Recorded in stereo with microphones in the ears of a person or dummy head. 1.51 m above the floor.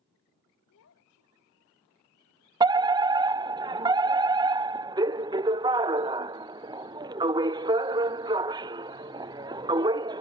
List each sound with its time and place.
0.7 s a child speaking: 85° left; by 1.8 s 80° left
2.6 s a fire alarm: 15° right (ahead or behind)